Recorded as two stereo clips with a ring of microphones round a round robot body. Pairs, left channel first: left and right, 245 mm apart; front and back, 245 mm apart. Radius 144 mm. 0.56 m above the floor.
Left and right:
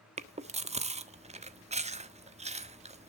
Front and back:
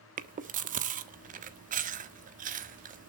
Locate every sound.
0.2 s chewing: 140° right, 1.3 m